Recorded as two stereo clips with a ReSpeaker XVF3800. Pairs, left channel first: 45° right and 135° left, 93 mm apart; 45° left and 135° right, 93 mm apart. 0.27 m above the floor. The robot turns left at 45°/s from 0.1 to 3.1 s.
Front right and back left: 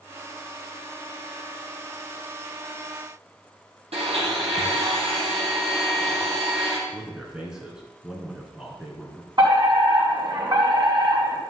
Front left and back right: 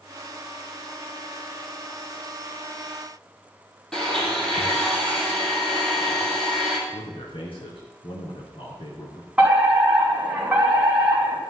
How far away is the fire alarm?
About 4 m.